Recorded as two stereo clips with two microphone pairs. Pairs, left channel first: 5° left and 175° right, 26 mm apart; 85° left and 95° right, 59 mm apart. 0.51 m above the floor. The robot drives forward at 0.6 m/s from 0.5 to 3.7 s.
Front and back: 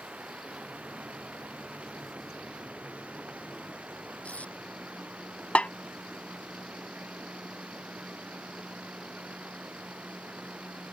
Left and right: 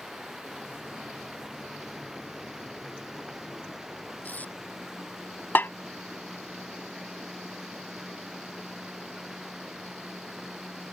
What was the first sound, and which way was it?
Running water, straight behind.